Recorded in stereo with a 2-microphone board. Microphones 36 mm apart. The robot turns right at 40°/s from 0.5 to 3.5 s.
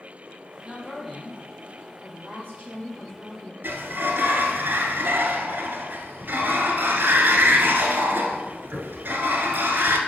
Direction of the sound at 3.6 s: 80° right.